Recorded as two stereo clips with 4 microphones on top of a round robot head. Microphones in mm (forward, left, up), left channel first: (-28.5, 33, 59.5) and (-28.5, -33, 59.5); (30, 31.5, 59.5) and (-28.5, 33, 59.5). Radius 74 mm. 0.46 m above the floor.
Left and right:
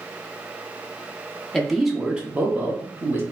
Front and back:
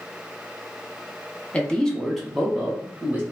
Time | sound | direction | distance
1.5 | a man speaking | 20° left | 0.9 m